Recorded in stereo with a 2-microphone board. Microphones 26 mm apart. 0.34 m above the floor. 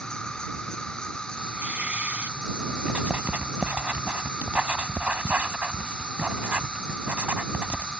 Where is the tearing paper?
75° right (ahead or behind).